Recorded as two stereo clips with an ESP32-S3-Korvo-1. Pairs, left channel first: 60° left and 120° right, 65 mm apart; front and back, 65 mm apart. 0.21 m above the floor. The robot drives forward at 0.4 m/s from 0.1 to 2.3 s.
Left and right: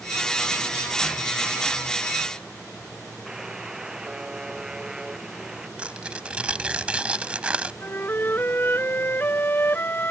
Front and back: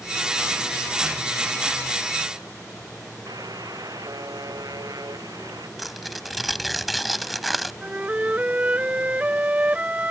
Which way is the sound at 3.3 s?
160° left.